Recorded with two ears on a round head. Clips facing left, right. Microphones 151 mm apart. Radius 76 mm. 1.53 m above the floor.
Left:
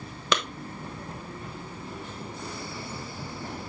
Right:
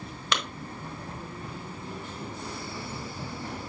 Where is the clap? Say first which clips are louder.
Left 4 dB; 75° left (ahead or behind), 1.3 m.